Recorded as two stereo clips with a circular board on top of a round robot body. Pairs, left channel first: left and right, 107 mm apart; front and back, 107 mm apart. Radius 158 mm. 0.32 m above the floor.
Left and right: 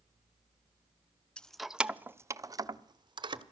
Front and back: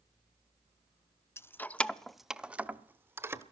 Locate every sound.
1.4 s keys jangling: 20° left, 0.7 m; by 3.4 s 120° right, 1.1 m